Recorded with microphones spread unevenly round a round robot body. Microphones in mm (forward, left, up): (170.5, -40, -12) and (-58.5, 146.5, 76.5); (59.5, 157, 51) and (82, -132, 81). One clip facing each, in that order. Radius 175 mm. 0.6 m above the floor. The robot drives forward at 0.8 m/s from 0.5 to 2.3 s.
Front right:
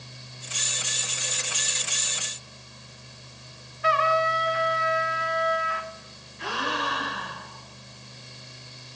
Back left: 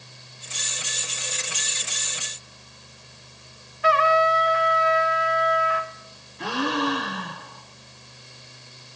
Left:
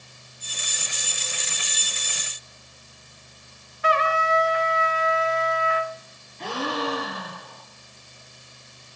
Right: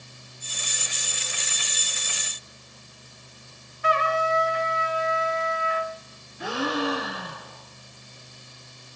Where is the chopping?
No chopping in this recording.